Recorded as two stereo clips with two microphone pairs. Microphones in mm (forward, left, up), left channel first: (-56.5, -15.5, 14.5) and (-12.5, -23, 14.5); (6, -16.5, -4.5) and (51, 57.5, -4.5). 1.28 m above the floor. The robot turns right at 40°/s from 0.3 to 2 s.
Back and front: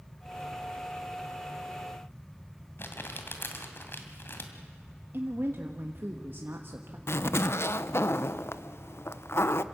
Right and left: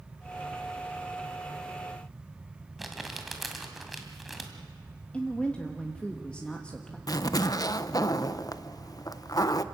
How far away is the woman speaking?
About 1.3 m.